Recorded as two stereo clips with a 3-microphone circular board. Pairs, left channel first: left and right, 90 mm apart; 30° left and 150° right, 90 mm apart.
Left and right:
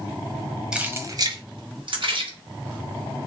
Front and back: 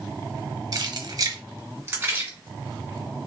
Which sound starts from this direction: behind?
Keys jangling, at 0.7 s.